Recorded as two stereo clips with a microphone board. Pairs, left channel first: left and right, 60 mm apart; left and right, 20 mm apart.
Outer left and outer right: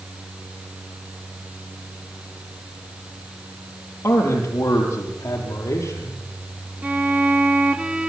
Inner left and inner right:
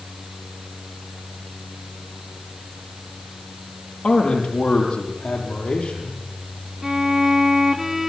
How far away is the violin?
About 1.4 m.